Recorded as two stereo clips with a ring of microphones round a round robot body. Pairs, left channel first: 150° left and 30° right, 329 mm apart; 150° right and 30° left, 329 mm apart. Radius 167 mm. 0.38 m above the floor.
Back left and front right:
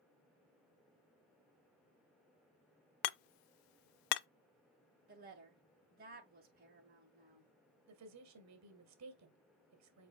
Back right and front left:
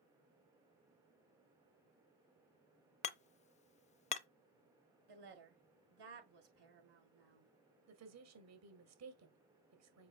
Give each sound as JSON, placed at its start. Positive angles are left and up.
{"t": 3.0, "sound": "hammering", "azimuth_deg": 140, "distance_m": 0.6}
{"t": 5.1, "sound": "a woman speaking", "azimuth_deg": 35, "distance_m": 6.5}
{"t": 7.9, "sound": "a woman speaking", "azimuth_deg": 0, "distance_m": 2.0}